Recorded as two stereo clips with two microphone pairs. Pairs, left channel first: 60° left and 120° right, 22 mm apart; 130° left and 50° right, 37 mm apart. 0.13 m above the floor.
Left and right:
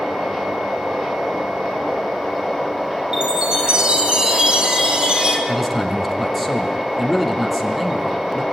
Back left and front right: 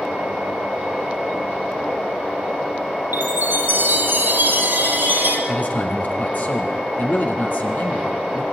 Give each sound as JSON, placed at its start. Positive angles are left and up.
{"t": 3.1, "sound": "a chime", "azimuth_deg": -75, "distance_m": 4.0}
{"t": 5.5, "sound": "a man speaking", "azimuth_deg": 155, "distance_m": 4.0}